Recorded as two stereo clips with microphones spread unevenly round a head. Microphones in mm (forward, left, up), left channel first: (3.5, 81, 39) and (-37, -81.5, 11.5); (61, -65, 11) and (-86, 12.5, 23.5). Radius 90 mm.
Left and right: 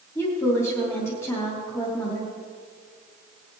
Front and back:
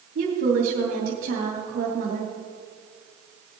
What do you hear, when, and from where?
0.1 s a woman speaking: 150° left, 3 m